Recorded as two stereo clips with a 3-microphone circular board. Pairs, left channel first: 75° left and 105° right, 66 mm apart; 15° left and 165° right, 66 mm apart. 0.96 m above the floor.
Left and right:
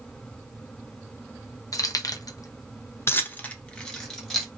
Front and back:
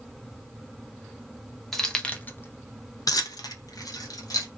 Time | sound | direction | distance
1.7 | keys jangling | 100° left | 0.7 m